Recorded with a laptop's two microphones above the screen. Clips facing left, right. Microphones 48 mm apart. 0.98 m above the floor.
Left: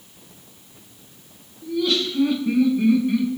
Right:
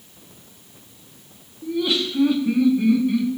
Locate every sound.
1.6 s laughter: 25° right (ahead or behind), 1.7 m; by 3.4 s 15° left (ahead or behind), 2.5 m